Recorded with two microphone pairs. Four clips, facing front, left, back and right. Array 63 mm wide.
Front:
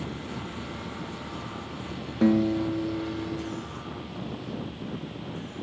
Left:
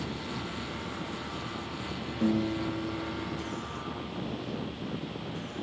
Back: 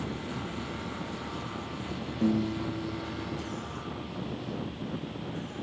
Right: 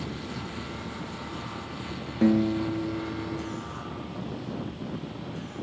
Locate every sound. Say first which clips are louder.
2.2 s a guitar: right 6 dB, front 6 dB; 30° right, 0.7 m